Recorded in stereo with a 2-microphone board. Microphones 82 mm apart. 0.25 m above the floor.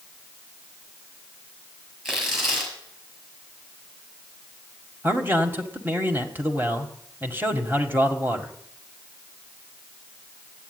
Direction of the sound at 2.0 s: 5° right (ahead or behind).